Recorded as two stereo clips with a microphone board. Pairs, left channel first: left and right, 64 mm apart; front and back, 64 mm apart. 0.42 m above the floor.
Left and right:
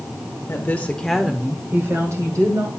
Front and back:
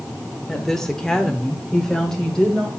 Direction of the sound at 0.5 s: 85° left.